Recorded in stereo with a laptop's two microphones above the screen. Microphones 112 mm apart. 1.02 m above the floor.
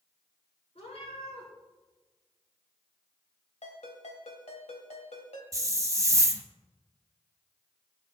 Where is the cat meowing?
65° left (ahead or behind), 5.5 m.